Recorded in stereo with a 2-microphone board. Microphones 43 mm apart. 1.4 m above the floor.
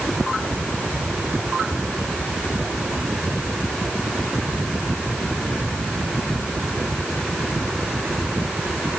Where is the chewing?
I don't hear chewing.